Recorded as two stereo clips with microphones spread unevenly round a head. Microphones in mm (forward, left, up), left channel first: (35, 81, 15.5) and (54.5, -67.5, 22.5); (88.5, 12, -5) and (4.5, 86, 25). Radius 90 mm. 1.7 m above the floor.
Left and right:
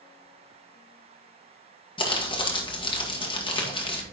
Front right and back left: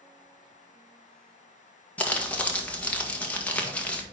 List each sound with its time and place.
2.0 s crumpling: 40° left, 1.7 m